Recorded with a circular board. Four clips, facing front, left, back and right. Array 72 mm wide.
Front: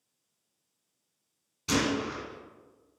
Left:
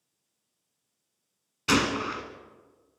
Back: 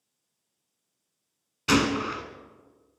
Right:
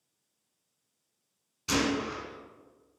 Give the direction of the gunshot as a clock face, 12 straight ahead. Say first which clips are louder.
Left 3 dB, back 5 dB; 7 o'clock.